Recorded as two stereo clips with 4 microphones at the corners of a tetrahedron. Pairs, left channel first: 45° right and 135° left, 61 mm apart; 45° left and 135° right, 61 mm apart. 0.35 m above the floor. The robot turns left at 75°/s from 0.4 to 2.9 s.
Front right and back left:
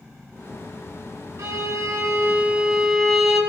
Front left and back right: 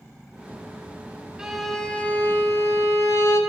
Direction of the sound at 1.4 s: 150° left.